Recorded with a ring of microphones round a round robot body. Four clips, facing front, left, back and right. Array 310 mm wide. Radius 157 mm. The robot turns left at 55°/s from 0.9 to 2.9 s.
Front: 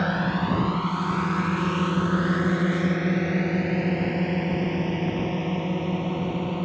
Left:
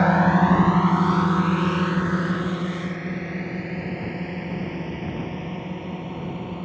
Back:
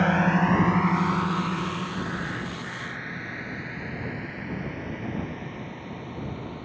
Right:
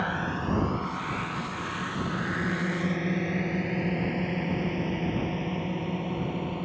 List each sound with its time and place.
0.0 s a drone: 100° left; by 6.7 s straight ahead